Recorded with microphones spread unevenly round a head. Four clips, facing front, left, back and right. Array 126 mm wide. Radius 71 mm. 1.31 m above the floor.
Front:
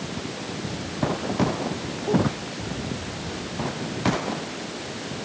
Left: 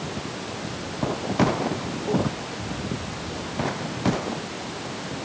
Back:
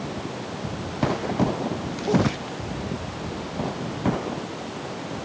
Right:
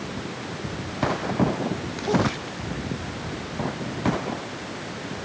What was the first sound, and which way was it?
Only background noise.